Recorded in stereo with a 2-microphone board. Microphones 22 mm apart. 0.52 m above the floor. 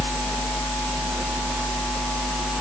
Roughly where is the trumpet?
I don't hear a trumpet.